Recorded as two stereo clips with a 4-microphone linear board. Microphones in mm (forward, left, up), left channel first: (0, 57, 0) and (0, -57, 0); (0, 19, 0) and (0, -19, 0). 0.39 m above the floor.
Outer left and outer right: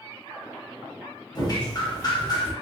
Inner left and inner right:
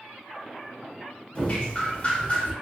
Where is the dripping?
35° left (ahead or behind), 0.7 m.